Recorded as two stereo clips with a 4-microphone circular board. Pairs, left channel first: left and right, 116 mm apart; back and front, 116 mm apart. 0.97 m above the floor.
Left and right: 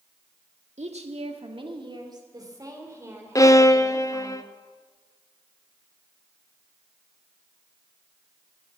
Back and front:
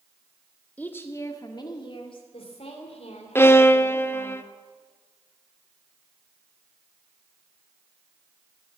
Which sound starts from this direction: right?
A woman speaking, at 0.8 s.